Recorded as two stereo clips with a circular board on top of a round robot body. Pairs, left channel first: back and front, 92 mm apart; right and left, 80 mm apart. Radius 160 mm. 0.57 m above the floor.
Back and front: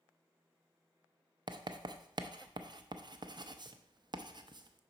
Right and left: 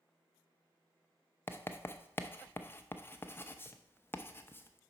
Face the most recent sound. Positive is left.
turn(degrees=-30)